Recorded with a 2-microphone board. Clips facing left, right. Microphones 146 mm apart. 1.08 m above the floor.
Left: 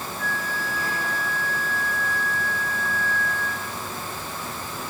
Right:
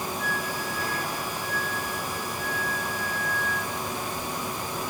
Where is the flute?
10° right (ahead or behind), 1.0 m.